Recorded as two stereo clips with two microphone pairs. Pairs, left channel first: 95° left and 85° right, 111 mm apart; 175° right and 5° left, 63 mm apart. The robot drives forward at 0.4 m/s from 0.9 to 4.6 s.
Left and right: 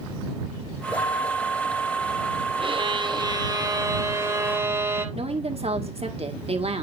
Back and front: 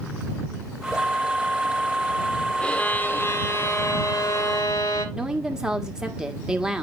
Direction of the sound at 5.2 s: 75° right.